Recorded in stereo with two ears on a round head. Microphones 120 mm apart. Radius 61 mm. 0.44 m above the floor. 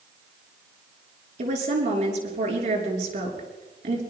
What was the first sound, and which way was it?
A woman speaking, 60° right (ahead or behind).